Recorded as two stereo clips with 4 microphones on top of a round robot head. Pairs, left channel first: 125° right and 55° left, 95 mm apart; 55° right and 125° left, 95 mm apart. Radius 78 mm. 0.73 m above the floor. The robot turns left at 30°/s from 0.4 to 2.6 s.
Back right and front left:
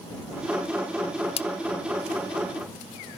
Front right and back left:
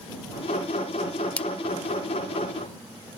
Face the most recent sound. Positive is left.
turn(degrees=-170)